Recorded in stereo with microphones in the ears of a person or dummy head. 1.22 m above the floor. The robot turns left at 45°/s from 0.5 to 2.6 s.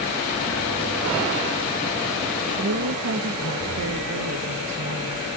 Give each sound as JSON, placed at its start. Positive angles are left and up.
{"t": 2.5, "sound": "a woman speaking", "side_deg": -80, "distance_m": 1.5}